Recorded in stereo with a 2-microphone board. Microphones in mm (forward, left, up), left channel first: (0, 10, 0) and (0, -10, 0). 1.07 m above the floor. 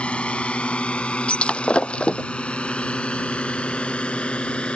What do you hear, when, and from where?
0.0 s a drone: 80° left; by 4.8 s 75° left (ahead or behind)
1.3 s breaking glass: 75° left (ahead or behind)